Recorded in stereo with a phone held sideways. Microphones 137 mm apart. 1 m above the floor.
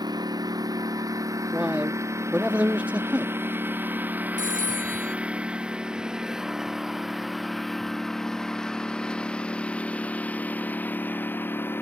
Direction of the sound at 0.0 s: 30° right (ahead or behind).